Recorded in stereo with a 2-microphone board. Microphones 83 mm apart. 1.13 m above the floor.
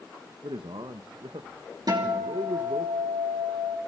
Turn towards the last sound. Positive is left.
turn(degrees=-55)  # may be behind; listen again after turning